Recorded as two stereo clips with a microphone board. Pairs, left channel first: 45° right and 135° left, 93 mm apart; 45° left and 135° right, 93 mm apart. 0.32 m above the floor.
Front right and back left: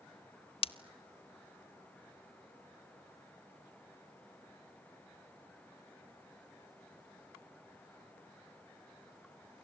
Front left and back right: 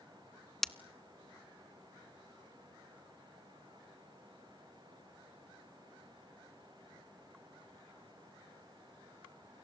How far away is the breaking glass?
About 0.6 m.